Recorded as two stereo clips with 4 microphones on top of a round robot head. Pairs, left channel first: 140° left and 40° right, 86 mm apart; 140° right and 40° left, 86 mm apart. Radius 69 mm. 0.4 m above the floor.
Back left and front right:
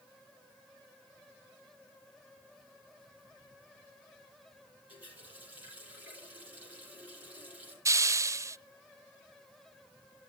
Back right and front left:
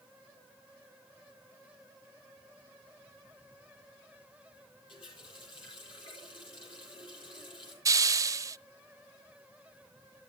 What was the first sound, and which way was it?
A running tap, 115° right.